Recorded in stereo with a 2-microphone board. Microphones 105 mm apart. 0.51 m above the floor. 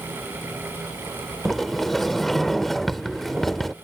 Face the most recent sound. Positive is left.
turn(degrees=0)  # may be behind; listen again after turning